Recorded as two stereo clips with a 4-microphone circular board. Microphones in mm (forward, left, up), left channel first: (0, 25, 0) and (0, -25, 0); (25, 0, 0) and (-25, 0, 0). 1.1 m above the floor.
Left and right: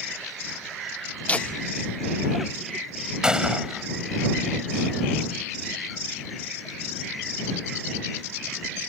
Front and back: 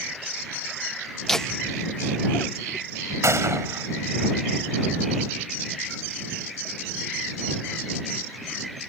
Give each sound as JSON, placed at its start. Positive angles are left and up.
{"t": 1.3, "sound": "laughter", "azimuth_deg": 80}
{"t": 3.2, "sound": "a gunshot", "azimuth_deg": -165}